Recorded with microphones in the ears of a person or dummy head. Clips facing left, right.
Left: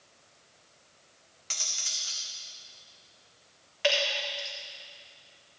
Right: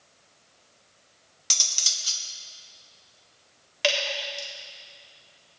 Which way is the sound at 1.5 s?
55° right (ahead or behind).